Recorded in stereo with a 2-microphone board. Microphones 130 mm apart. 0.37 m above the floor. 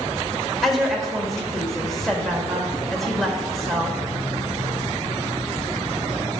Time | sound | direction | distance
0.6 | a woman speaking | centre (ahead or behind) | 1.0 m